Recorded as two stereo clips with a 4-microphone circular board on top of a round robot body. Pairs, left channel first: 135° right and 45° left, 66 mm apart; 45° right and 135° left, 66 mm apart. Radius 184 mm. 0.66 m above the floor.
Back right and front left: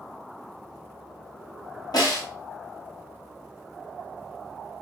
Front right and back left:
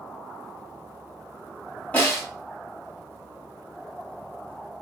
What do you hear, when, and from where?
1.9 s a snare drum: 115° right, 2 m